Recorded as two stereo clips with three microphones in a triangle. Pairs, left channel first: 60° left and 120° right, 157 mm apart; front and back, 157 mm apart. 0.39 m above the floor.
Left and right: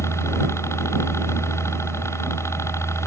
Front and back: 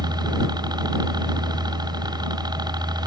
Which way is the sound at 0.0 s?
125° left.